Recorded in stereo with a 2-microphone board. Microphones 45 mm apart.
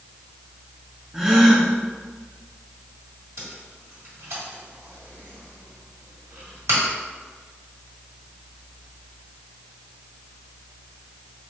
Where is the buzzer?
No buzzer in this recording.